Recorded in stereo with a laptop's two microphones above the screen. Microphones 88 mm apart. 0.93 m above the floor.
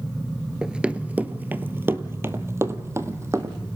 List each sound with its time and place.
0.6 s running footsteps: 10° right (ahead or behind), 0.9 m; by 3.5 s 35° right (ahead or behind), 2 m